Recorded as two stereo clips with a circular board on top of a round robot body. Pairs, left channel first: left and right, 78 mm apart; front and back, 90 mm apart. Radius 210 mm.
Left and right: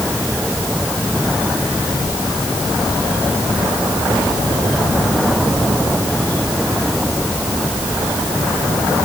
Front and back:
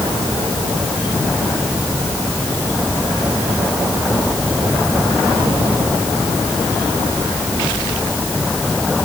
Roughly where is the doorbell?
No doorbell in this recording.